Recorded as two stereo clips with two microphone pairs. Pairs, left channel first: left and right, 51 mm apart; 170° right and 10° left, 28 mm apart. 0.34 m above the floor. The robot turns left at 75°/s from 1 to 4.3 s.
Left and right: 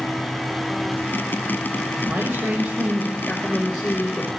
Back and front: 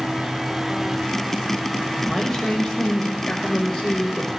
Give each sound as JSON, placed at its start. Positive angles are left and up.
{"t": 2.1, "sound": "a man speaking", "azimuth_deg": -75, "distance_m": 1.1}